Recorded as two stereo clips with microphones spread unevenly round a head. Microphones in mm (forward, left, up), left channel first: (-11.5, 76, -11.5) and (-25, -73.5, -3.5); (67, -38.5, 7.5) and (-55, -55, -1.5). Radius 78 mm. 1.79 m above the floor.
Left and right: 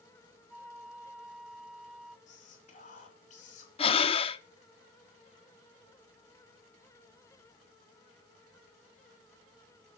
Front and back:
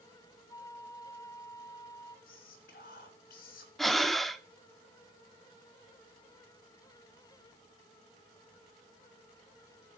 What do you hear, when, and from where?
0.5 s a flute: 20° right, 0.9 m
2.3 s whispering: 35° left, 3.5 m
3.8 s breathing: 90° left, 0.7 m